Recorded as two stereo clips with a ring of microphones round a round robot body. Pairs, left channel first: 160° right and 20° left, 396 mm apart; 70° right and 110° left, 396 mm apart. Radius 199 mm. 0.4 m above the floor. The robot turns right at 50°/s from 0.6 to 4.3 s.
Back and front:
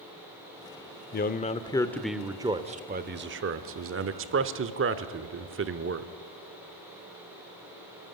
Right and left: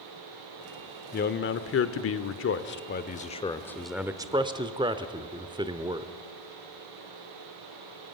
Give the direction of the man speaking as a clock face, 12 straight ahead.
4 o'clock.